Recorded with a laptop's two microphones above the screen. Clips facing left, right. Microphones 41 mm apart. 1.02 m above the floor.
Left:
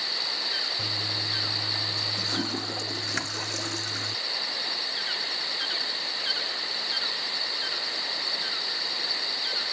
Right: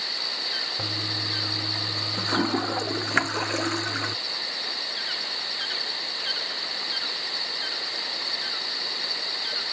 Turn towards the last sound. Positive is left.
turn(degrees=-30)  # may be behind; listen again after turning